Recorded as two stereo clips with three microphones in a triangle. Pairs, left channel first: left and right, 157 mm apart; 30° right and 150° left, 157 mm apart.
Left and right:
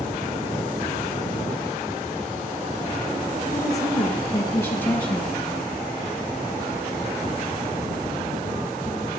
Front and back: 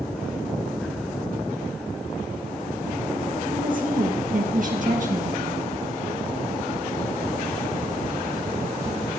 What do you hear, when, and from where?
3.5 s a woman speaking: 155° left, 3 m; by 5.4 s 170° left, 3 m